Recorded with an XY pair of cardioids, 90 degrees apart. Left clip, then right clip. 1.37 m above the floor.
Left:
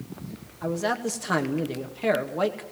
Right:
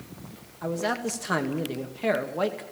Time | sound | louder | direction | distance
0.6 | a man speaking | left 1 dB | 10° left | 2 m